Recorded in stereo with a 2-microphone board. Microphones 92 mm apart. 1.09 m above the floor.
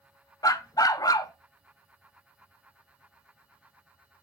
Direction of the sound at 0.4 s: 40° left (ahead or behind).